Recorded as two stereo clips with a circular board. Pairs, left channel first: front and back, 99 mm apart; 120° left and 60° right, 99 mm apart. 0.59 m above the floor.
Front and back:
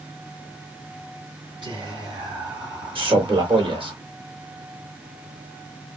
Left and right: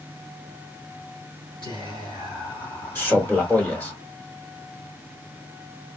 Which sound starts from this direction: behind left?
Whispering, at 1.6 s.